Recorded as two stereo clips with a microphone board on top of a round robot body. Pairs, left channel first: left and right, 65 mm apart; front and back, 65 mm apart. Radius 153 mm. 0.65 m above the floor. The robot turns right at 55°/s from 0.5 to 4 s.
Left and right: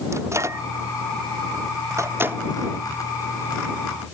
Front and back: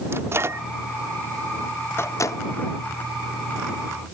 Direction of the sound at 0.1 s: 130° right.